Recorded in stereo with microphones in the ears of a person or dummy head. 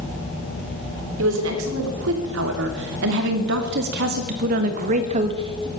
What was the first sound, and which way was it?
A woman speaking, 85° right.